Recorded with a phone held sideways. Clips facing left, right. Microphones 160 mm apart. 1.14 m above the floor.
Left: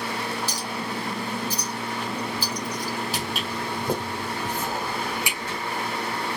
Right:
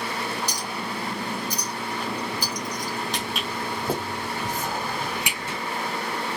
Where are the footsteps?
5° left (ahead or behind), 2 m; by 5.6 s 25° right (ahead or behind), 3.5 m.